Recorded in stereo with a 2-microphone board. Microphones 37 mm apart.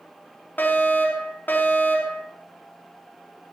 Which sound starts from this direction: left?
A fire alarm, at 0.6 s.